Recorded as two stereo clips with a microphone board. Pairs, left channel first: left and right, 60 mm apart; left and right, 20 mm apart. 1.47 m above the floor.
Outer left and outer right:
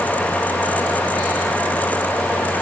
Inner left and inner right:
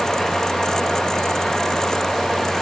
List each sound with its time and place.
Only background noise.